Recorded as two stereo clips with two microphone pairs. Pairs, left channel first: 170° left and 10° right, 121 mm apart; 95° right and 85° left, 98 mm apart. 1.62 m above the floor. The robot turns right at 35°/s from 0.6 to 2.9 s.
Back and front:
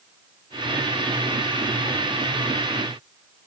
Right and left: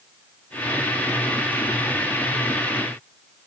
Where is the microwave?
I don't hear a microwave.